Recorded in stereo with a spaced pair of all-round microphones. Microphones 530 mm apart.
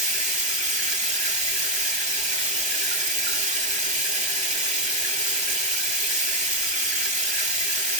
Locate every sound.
0.0 s running water: 55° right (ahead or behind), 4 m